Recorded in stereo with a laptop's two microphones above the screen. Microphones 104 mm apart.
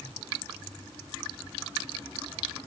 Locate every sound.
Only background noise.